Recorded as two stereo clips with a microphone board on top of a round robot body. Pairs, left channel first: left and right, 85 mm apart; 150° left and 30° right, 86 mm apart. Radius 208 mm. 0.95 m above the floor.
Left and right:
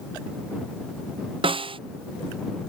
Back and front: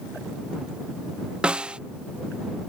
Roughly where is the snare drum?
Right.